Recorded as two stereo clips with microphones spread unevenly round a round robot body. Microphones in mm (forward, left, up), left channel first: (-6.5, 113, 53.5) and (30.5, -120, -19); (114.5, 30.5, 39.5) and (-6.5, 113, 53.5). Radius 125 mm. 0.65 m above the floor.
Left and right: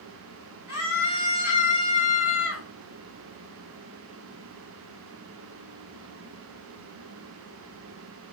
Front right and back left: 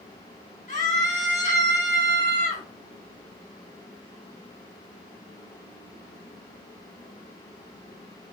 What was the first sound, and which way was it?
A scream, 5° right.